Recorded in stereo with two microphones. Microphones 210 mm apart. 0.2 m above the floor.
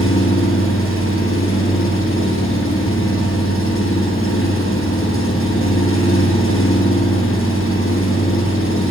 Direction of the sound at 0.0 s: 80° left.